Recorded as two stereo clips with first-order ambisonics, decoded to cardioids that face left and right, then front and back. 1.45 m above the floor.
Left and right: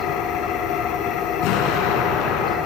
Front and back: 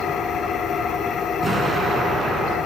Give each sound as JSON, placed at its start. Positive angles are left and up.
{"t": 0.0, "sound": "an engine running", "azimuth_deg": 55, "distance_m": 3.0}
{"t": 1.4, "sound": "an explosion", "azimuth_deg": 105, "distance_m": 5.0}